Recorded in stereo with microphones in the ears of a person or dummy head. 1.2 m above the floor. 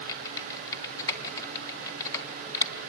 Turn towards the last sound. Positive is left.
turn(degrees=25)  # may be behind; listen again after turning